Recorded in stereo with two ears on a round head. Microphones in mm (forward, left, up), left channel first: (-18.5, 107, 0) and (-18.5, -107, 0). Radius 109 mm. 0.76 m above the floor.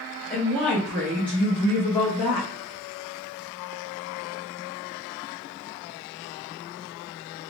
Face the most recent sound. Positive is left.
turn(degrees=5)  # may be behind; listen again after turning